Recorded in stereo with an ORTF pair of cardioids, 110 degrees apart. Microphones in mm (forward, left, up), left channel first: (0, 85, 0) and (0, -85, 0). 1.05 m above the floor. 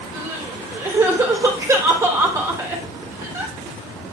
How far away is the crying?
About 3 m.